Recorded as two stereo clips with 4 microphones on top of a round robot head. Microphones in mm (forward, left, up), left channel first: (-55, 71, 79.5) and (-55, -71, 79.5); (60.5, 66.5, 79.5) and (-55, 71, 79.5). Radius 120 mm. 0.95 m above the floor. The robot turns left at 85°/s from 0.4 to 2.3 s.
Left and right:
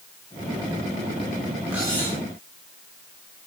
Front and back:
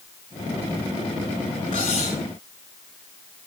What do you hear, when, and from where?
1.7 s cutlery clinking: 5° right, 7 m; by 2.2 s 50° right, 7 m